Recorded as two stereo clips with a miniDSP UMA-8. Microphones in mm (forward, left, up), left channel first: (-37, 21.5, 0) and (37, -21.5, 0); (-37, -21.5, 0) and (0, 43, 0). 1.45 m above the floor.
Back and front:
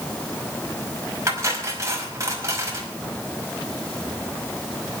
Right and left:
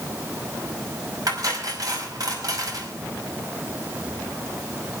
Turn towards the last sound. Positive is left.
turn(degrees=25)